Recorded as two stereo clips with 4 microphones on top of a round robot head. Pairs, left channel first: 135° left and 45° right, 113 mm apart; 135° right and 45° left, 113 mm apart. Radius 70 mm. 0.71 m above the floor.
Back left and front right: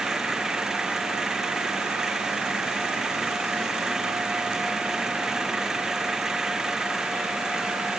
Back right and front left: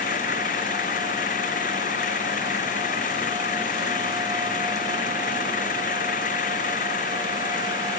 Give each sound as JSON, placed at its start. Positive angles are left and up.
{"t": 0.0, "sound": "an engine running", "azimuth_deg": -130}